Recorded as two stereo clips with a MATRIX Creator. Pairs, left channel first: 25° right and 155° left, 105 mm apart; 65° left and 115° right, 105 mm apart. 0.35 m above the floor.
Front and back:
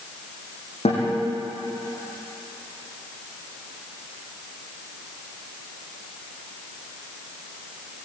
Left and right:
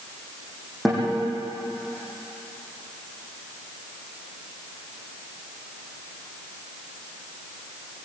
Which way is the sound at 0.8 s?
25° right.